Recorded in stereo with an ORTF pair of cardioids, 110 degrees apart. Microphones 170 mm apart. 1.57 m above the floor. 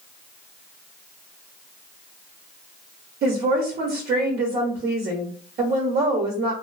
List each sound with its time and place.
3.2 s a woman speaking: 65° right, 0.8 m